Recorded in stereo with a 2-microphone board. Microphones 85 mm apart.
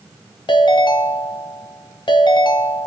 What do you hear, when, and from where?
0.5 s a ringtone: 65° left (ahead or behind), 0.7 m